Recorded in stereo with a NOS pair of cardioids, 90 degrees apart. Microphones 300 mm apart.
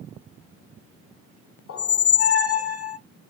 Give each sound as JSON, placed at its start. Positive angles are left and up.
{"t": 1.7, "sound": "a squeak", "azimuth_deg": 50, "distance_m": 0.6}